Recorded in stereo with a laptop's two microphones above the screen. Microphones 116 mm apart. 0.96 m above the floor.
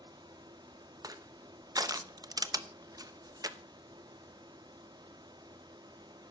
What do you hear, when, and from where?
0.0 s a fan: 40° right (ahead or behind), 0.7 m
1.0 s crushing: 35° right (ahead or behind), 0.8 m